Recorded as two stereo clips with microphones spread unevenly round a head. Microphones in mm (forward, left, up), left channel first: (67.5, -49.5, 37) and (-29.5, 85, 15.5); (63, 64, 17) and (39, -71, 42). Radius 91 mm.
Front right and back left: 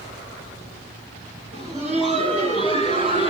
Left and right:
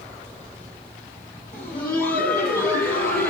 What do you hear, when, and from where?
1.5 s laughter: 80° left, 9 m; by 3.3 s 75° left, 8.5 m